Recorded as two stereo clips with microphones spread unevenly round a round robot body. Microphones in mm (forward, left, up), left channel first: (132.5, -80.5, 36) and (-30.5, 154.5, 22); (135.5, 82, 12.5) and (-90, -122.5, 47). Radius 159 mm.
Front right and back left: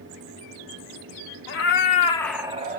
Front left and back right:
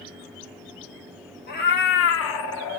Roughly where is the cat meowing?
Ahead.